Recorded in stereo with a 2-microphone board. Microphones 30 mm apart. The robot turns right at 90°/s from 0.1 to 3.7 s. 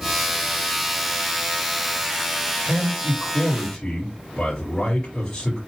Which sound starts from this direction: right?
A man speaking, at 2.6 s.